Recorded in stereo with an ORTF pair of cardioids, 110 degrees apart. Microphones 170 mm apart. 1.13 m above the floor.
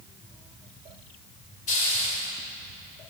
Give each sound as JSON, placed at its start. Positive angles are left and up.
{"t": 1.7, "sound": "a hiss", "azimuth_deg": 55, "distance_m": 1.8}